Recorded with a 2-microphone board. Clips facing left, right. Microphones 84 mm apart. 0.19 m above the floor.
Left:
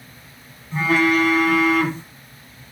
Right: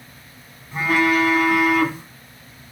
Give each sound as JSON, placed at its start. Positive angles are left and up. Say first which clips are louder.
{"t": 0.7, "sound": "a phone buzzing", "louder": "left 1 dB", "side_deg": -15, "distance_m": 1.2}